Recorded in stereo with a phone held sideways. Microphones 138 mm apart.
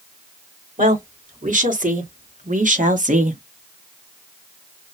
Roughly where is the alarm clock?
I don't hear an alarm clock.